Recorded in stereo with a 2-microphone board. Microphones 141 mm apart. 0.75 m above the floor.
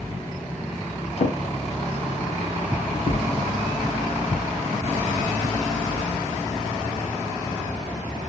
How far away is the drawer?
About 0.5 m.